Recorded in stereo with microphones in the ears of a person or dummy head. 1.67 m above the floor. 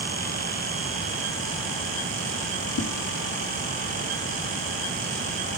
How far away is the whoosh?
About 5 m.